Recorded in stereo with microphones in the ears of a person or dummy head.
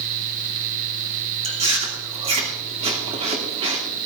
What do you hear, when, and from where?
1.4 s chewing: 30° right (ahead or behind), 2.5 m